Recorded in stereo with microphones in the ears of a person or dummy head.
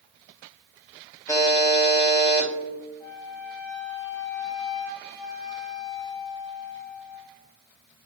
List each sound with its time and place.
1.3 s a buzzer: 20° left (ahead or behind), 0.7 m
3.0 s a flute: 20° left (ahead or behind), 1.2 m